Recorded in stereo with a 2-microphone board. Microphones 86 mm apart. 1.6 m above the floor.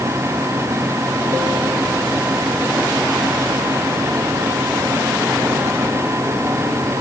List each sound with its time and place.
Only background noise.